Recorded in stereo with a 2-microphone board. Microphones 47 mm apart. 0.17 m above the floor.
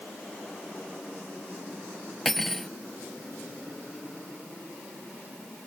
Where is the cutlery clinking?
5° left (ahead or behind).